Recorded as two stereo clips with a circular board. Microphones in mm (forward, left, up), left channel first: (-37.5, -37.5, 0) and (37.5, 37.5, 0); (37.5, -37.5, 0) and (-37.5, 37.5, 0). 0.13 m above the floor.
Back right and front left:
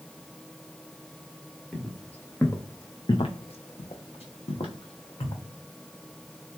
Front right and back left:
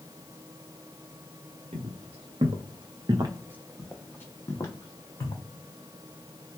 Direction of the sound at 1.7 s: 140° left.